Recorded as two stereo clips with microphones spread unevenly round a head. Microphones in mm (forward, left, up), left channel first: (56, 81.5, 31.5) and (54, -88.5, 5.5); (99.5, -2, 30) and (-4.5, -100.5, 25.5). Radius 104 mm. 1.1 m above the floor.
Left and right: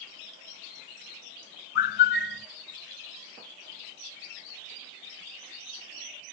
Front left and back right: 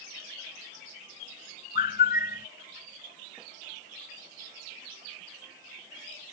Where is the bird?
90° left.